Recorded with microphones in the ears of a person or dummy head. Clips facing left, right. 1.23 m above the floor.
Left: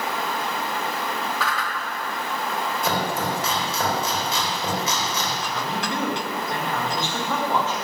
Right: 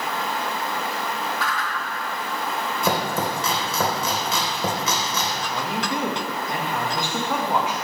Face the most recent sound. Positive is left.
turn(degrees=-20)  # may be behind; listen again after turning